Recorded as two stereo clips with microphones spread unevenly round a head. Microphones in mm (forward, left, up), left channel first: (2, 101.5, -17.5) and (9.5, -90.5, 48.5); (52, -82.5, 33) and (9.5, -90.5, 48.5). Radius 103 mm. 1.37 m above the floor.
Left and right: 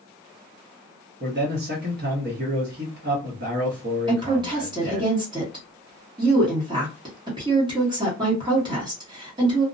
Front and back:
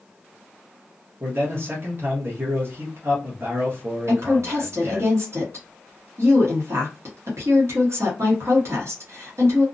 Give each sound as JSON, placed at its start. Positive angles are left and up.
{"t": 1.2, "sound": "a man speaking", "azimuth_deg": -135, "distance_m": 0.9}
{"t": 4.1, "sound": "a woman speaking", "azimuth_deg": -155, "distance_m": 1.0}